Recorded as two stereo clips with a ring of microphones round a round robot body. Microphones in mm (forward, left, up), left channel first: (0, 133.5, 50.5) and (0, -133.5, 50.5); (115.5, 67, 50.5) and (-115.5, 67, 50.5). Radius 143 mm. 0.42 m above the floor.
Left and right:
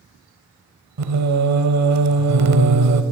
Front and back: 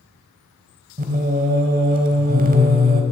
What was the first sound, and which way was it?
Singing, 120° right.